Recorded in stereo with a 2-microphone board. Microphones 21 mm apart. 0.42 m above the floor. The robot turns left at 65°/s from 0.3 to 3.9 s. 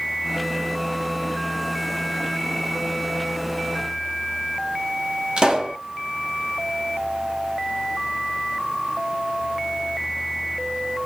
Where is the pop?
50° right (ahead or behind), 1.1 m.